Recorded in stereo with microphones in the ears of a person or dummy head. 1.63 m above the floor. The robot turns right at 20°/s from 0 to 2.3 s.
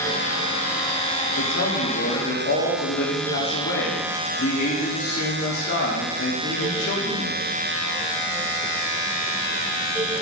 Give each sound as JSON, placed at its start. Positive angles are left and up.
{"t": 1.4, "sound": "a man speaking", "side_deg": 60, "distance_m": 1.2}